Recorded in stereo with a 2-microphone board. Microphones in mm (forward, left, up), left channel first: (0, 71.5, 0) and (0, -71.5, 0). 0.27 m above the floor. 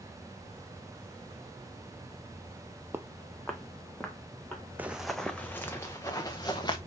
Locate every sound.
2.9 s footsteps: 15° right (ahead or behind), 0.6 m; by 4.6 s 10° left (ahead or behind), 2.5 m
4.8 s running footsteps: 10° right (ahead or behind), 0.8 m; by 6.8 s 30° left (ahead or behind), 1.8 m